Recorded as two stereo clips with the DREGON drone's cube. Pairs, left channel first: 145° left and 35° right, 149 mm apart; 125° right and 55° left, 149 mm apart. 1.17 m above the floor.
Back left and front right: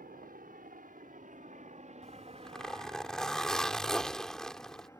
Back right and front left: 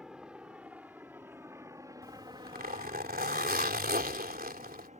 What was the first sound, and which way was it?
A helicopter, 30° right.